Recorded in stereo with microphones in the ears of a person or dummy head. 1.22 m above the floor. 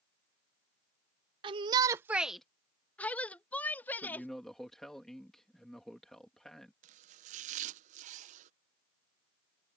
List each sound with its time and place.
1.4 s a shout: 25° right (ahead or behind); by 4.3 s 10° left (ahead or behind)
4.0 s a man speaking: 5° left (ahead or behind)
6.8 s chopping: 40° right (ahead or behind)